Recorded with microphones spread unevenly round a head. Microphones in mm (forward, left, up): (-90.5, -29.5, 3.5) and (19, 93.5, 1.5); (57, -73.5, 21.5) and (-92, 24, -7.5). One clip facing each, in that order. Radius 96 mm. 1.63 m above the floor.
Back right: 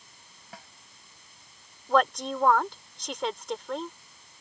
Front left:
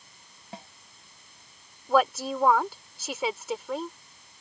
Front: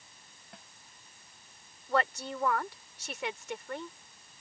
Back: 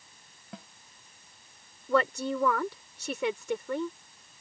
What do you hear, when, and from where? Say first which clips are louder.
0.5 s a snare drum: front left 5 dB, back 10 dB; 115° left
1.9 s a woman speaking: front left 1 dB, back 5 dB; 135° left